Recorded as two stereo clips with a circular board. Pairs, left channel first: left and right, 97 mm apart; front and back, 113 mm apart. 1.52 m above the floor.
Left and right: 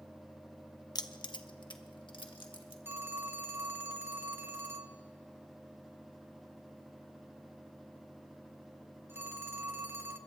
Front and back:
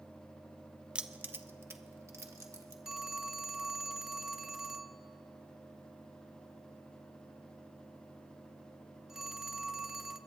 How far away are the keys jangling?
About 0.5 m.